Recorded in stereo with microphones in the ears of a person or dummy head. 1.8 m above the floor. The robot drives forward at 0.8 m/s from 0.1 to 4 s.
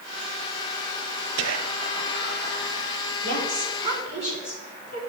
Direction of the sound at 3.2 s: 35° right (ahead or behind).